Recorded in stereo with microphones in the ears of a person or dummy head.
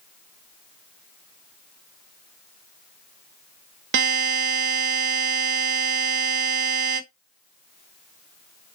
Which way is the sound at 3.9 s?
70° right (ahead or behind).